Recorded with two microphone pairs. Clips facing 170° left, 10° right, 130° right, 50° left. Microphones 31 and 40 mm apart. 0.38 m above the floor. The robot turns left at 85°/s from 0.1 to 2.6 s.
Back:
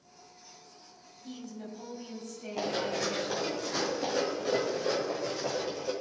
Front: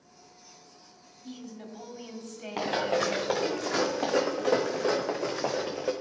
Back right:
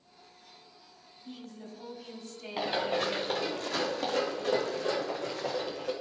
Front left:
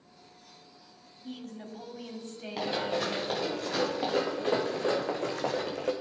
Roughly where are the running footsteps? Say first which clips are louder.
Front 4 dB, back right 1 dB; ahead right.